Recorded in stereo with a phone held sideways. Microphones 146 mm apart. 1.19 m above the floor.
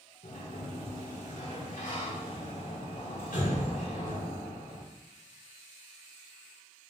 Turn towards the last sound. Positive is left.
turn(degrees=80)